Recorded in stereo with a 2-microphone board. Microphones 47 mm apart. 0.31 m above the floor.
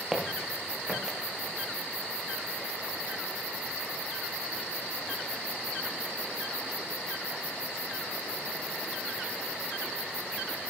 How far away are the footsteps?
About 4.5 m.